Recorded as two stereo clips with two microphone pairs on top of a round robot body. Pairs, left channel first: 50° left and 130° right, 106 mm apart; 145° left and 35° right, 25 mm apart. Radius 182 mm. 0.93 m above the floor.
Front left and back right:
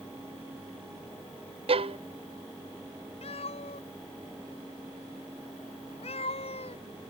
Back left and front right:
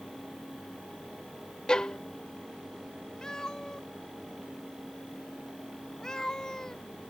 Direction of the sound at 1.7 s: 160° right.